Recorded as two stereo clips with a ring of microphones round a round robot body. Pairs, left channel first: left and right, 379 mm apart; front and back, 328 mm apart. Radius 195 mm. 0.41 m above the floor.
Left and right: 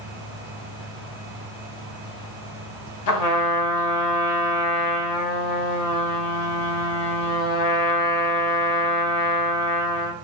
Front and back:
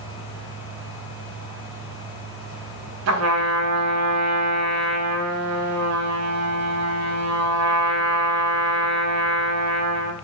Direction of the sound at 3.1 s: 135° left.